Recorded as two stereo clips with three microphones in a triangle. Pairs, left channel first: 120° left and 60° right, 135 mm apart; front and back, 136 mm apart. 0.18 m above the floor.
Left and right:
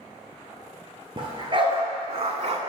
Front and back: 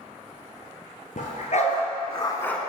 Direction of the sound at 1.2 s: 10° right.